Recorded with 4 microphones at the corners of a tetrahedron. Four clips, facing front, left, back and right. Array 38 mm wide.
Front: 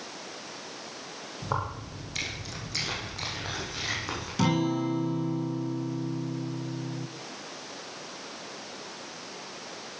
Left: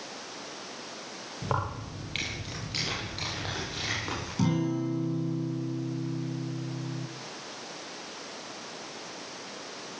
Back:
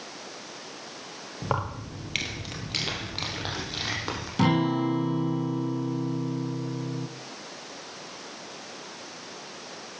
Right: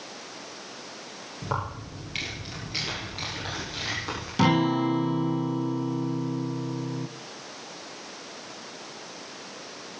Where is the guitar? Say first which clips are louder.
Right 7 dB, back 3 dB; 110° right, 0.7 m.